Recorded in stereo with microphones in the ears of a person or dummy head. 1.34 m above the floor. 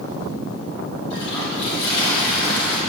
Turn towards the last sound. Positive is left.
turn(degrees=65)  # may be behind; listen again after turning